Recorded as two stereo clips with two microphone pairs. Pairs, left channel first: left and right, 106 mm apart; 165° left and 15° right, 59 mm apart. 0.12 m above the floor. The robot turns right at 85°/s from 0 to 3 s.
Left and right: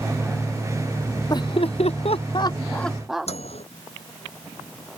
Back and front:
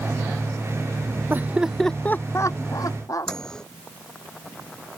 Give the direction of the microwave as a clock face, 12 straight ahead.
9 o'clock.